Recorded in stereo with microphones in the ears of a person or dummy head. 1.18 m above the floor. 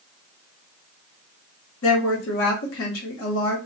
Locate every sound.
1.8 s a woman speaking: 65° left (ahead or behind), 0.9 m